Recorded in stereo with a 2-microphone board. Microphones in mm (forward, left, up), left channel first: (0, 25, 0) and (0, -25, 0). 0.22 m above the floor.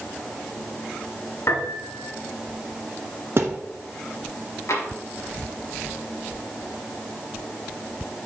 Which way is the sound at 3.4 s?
55° right (ahead or behind).